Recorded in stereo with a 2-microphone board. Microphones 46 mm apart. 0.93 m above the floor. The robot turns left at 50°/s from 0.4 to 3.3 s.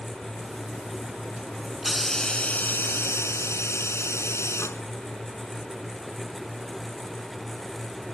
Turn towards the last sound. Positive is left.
turn(degrees=110)